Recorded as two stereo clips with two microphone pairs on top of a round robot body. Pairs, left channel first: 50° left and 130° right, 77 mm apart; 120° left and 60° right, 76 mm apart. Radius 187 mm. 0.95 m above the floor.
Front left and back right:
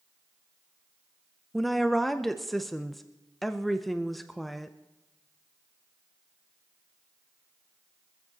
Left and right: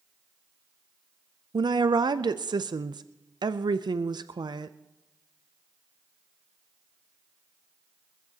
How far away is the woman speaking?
About 0.5 m.